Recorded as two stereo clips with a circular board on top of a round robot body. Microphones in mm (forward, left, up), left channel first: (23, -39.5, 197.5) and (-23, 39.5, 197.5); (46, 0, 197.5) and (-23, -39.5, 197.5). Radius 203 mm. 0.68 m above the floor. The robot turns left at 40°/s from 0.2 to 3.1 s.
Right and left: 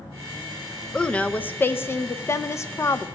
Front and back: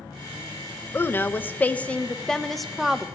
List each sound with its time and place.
0.9 s a woman speaking: 10° left, 0.6 m; by 3.1 s 75° right, 0.6 m